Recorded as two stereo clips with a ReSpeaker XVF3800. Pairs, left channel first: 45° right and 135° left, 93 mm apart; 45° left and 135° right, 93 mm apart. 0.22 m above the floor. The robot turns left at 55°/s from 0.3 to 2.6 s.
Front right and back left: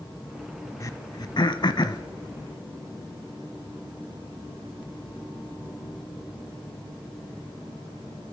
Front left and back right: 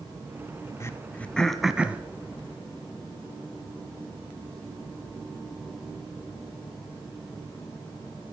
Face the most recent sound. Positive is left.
turn(degrees=-100)